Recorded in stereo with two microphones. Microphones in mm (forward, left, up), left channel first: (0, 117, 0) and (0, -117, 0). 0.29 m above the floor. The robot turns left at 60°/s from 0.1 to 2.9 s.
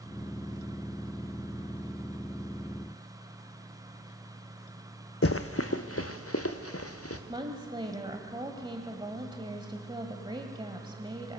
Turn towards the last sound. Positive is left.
turn(degrees=-20)  # may be behind; listen again after turning